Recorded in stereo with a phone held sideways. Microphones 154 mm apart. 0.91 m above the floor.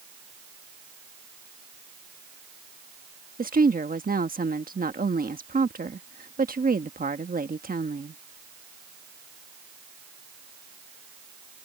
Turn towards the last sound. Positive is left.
turn(degrees=-70)  # may be behind; listen again after turning